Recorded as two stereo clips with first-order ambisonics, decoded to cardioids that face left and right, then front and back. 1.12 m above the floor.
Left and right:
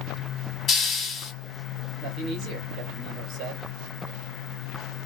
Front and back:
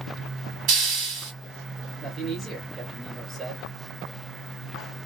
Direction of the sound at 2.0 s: 110° right.